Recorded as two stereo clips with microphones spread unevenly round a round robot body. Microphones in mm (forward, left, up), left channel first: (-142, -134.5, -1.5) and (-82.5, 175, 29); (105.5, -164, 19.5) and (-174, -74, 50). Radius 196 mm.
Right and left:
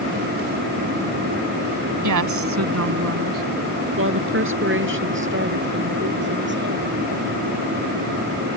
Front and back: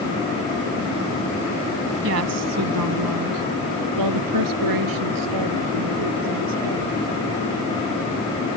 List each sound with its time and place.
2.0 s a woman speaking: 105° left; by 7.0 s 135° left